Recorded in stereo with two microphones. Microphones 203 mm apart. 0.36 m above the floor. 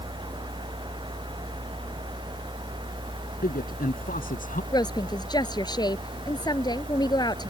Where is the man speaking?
45° left (ahead or behind).